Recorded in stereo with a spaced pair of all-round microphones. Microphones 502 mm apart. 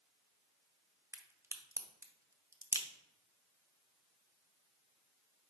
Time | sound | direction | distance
1.1 | a crack | 5° right (ahead or behind) | 0.7 m